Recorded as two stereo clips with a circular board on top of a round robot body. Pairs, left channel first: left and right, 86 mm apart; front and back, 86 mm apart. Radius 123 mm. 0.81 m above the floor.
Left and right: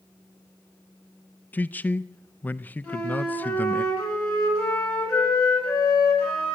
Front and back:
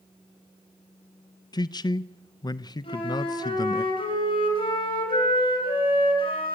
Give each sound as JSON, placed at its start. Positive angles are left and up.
{"t": 1.5, "sound": "a man speaking", "azimuth_deg": 25, "distance_m": 0.5}
{"t": 2.8, "sound": "a flute", "azimuth_deg": 10, "distance_m": 6.5}